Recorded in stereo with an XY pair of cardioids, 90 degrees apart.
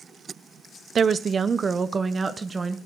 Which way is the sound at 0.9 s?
55° right.